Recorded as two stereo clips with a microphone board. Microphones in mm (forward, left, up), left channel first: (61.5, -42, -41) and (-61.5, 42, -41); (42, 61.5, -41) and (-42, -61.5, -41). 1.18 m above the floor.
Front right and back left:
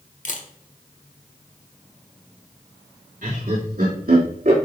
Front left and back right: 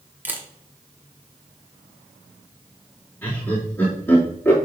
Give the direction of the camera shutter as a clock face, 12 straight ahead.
2 o'clock.